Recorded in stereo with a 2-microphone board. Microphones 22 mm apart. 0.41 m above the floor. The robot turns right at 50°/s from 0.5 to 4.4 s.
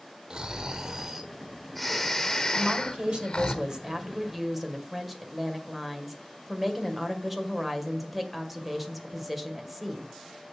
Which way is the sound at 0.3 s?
55° right.